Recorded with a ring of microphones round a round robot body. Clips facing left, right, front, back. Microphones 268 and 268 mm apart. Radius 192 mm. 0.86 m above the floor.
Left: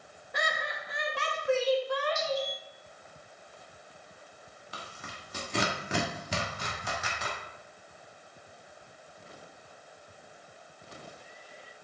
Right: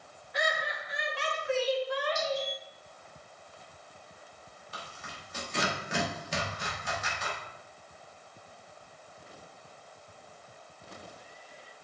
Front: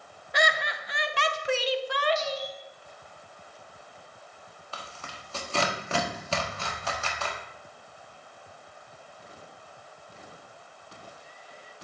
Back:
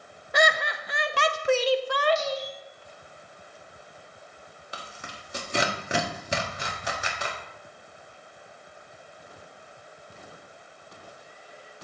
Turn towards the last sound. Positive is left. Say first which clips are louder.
# left 1 dB, back 1 dB
turn(degrees=105)